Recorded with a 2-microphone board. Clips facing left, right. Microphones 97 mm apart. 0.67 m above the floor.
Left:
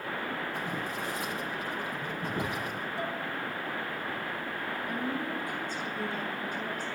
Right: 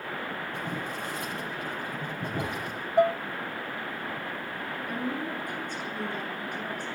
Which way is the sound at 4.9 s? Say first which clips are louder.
Right 2 dB; 60° right (ahead or behind).